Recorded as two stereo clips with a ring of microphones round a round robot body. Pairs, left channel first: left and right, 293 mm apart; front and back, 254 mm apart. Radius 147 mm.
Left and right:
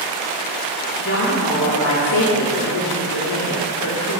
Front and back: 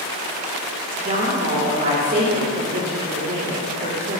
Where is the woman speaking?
130° left, 3 m.